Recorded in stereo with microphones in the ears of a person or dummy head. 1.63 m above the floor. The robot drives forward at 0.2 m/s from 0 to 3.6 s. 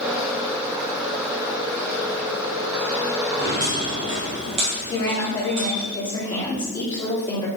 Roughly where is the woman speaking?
Left.